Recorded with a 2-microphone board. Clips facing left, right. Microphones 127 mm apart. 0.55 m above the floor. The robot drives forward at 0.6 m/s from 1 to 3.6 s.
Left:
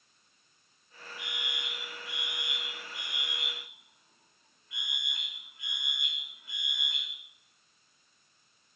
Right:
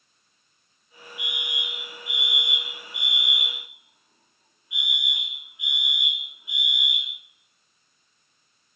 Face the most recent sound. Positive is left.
turn(degrees=-15)  # may be behind; listen again after turning